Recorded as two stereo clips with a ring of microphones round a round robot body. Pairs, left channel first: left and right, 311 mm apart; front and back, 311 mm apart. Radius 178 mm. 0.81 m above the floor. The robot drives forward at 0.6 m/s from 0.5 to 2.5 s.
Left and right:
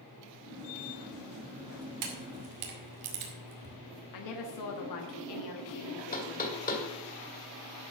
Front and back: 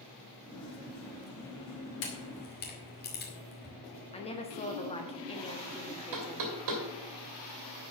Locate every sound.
2.0 s a camera shutter: 55° right, 2 m; by 3.8 s 60° right, 2 m
4.1 s a woman speaking: 70° left, 1.3 m
6.1 s knocking: 155° left, 2.5 m